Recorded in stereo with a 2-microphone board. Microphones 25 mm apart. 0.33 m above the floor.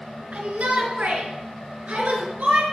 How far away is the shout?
About 4 m.